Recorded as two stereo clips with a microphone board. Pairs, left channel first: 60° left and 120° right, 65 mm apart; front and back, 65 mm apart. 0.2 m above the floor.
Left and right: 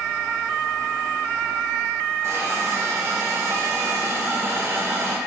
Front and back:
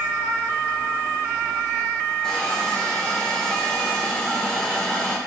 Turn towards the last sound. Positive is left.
turn(degrees=-80)